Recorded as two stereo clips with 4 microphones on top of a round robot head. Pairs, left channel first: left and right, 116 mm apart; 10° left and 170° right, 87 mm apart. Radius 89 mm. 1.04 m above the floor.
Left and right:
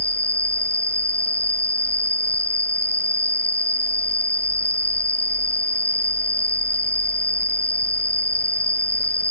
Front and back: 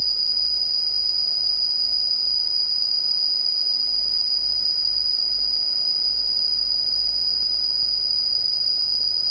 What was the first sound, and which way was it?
An insect, 165° left.